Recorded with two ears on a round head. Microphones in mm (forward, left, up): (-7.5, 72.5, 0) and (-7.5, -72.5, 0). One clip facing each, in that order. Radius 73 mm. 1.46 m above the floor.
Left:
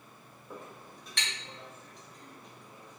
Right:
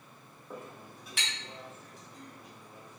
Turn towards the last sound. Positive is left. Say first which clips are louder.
# right 2 dB
turn(degrees=-5)  # may be behind; listen again after turning